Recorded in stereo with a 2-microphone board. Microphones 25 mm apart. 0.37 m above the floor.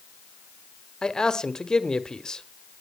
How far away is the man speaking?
About 1.0 m.